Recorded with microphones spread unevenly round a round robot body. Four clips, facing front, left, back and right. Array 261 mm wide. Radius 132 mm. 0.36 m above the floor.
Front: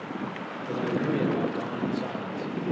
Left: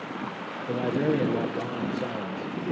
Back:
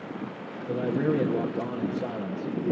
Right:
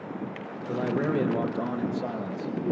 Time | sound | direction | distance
0.7 | a man speaking | 115° left | 6 m